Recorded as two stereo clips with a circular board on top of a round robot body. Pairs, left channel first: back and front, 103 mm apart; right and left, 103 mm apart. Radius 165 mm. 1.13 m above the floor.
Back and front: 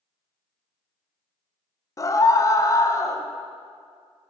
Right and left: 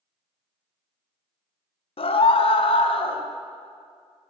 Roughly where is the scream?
Behind right.